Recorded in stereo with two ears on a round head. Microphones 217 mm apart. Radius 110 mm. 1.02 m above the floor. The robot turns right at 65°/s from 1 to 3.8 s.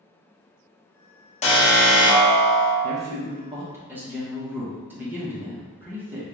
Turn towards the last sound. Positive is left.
turn(degrees=-10)